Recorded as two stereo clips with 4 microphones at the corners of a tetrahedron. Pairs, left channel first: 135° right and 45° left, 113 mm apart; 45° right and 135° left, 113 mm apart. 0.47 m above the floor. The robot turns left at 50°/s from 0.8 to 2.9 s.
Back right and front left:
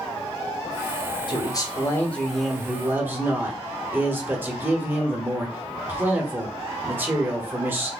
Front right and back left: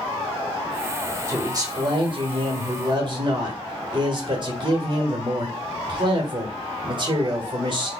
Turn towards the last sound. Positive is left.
turn(degrees=110)